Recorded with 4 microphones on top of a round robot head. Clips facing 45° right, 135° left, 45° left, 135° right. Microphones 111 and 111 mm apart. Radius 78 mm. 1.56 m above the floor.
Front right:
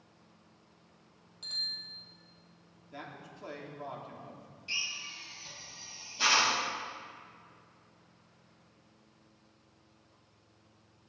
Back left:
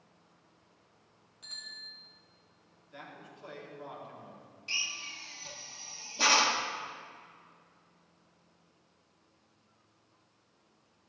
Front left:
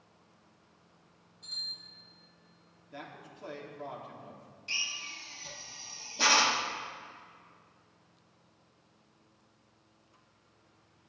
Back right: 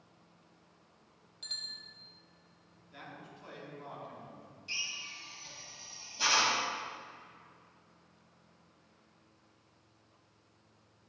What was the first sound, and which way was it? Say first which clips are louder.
A bicycle bell: even, back right 1 dB; 115° right.